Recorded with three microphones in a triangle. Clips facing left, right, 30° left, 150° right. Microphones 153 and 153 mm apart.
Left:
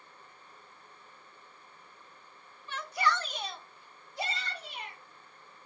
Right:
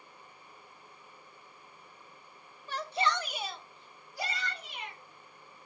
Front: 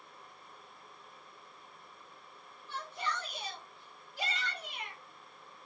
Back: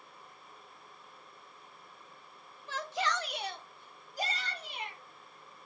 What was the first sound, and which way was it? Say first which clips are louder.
A shout: even, back 5 dB; 145° right.